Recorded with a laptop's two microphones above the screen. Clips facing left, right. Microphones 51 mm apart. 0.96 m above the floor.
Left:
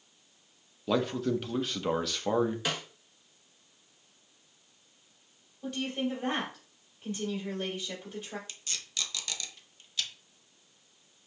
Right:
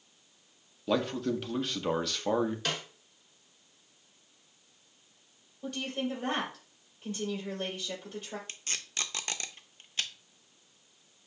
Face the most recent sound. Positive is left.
turn(degrees=-35)  # may be behind; listen again after turning